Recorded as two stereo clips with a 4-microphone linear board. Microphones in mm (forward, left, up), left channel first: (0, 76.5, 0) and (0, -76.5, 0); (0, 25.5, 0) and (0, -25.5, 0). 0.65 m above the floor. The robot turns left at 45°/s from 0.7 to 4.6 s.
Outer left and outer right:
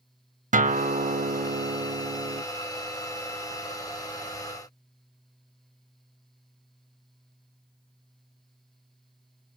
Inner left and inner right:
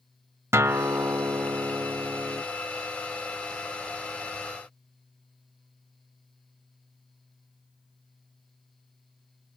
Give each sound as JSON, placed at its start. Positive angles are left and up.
{"t": 0.5, "sound": "a guitar", "azimuth_deg": -60, "distance_m": 0.6}